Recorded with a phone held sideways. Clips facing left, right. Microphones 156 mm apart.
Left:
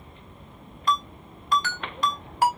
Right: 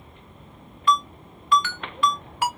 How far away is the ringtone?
About 1.0 m.